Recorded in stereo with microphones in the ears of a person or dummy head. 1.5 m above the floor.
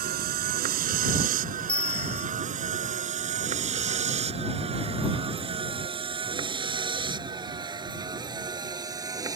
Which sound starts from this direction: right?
A vehicle, at 0.0 s.